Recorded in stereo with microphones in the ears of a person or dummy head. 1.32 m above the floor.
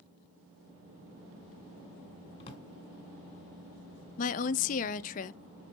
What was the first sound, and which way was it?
A drawer, 30° left (ahead or behind).